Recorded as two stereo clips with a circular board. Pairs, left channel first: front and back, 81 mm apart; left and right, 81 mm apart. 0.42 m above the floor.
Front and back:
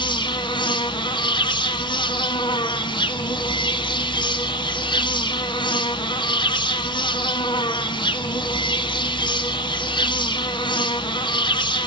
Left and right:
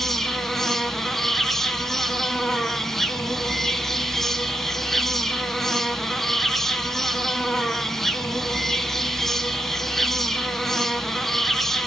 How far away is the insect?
About 1.0 m.